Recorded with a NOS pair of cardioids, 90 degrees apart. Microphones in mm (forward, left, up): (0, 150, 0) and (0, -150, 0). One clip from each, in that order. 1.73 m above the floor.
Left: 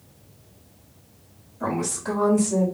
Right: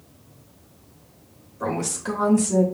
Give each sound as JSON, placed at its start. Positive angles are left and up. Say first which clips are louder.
{"t": 1.6, "sound": "a woman speaking", "louder": "even", "azimuth_deg": -40, "distance_m": 3.5}